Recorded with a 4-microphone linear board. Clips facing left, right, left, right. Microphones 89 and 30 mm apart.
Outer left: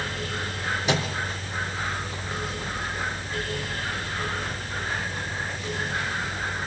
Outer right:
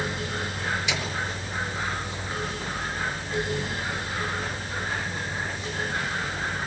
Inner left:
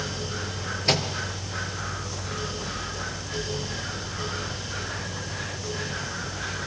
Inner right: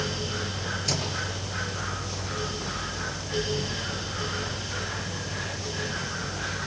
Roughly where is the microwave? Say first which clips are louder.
Outer left 5 dB, inner left 8 dB; left.